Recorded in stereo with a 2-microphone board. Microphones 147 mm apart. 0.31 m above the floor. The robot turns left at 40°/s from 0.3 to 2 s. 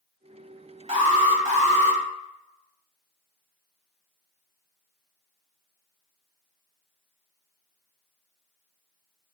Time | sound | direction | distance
0.9 | an alarm | 70° right | 1.4 m